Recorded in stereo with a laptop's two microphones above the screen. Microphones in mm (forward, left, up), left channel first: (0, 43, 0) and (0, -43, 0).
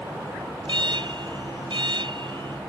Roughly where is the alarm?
Right.